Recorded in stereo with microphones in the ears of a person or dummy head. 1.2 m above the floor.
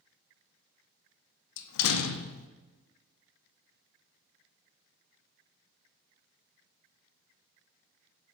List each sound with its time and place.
1.6 s a door slam: 75° left (ahead or behind), 0.5 m